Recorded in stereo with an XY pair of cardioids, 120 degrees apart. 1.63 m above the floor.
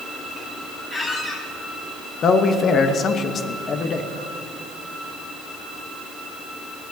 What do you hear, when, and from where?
0.9 s a squeak: 25° left, 5 m
2.2 s a man speaking: 45° left, 1.1 m